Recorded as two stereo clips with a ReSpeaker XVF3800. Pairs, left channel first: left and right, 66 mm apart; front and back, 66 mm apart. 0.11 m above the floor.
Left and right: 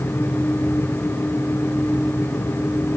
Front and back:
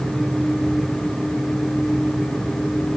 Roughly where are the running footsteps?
No running footsteps in this recording.